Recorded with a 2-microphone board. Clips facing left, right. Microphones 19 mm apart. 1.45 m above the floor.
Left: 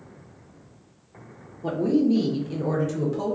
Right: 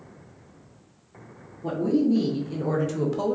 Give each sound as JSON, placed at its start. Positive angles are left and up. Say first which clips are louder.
{"t": 1.6, "sound": "a woman speaking", "louder": "left 1 dB", "side_deg": 50, "distance_m": 0.8}